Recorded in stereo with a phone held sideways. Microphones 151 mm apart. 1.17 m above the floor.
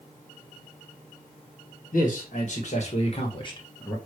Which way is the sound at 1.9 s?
60° left (ahead or behind).